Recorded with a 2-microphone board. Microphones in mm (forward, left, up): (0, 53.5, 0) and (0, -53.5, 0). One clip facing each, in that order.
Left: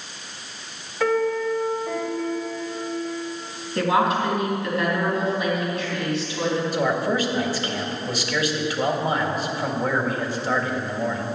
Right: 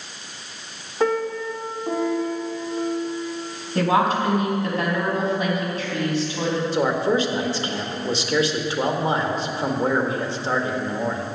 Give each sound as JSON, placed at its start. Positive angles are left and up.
{"t": 1.0, "sound": "a piano", "side_deg": -35, "distance_m": 1.5}
{"t": 3.8, "sound": "a woman speaking", "side_deg": -35, "distance_m": 4.5}
{"t": 6.7, "sound": "a man speaking", "side_deg": -25, "distance_m": 1.6}